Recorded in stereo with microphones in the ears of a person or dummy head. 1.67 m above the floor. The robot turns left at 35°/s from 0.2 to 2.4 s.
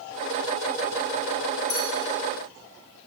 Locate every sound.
1.7 s a clink: 40° left (ahead or behind), 3.5 m; by 1.8 s 45° left (ahead or behind), 3.5 m